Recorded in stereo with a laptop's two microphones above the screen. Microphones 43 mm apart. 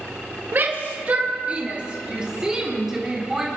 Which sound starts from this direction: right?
A shout, at 0.5 s.